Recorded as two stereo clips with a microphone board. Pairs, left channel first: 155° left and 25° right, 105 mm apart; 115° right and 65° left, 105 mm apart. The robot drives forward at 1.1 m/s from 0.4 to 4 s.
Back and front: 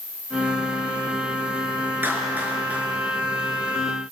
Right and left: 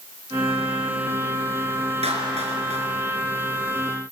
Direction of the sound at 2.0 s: 50° left.